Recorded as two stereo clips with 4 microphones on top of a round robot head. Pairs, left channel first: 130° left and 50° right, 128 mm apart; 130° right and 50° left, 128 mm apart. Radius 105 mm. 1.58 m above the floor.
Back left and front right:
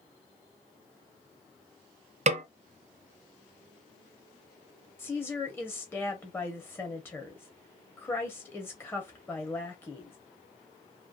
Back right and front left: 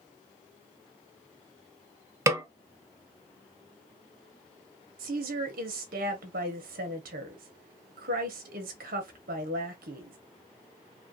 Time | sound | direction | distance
2.3 | a snare drum | 15° right | 0.6 m
5.0 | a woman speaking | 55° left | 1.0 m